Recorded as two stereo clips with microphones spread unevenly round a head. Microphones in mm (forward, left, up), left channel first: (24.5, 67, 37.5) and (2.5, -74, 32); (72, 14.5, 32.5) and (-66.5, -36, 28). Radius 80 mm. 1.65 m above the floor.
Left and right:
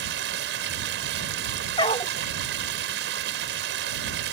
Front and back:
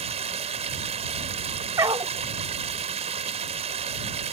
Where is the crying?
No crying in this recording.